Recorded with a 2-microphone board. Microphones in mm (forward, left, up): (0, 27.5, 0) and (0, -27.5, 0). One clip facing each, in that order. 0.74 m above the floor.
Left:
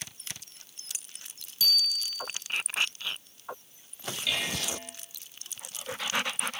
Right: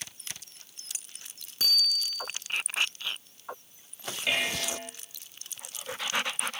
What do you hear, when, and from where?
1.6 s a bicycle bell: 40° right (ahead or behind), 7.5 m
4.3 s dishes clattering: 35° right (ahead or behind), 2.5 m